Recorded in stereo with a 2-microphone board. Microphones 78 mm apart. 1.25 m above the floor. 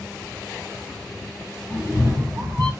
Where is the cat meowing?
30° right (ahead or behind), 1.6 m; by 2.7 s 50° right (ahead or behind), 2 m.